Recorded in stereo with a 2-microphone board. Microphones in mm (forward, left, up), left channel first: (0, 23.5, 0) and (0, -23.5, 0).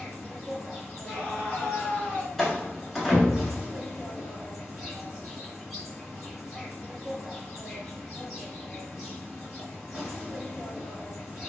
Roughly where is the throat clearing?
I don't hear throat clearing.